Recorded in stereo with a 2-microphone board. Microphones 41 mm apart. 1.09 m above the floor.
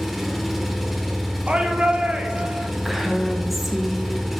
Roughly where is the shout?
Right.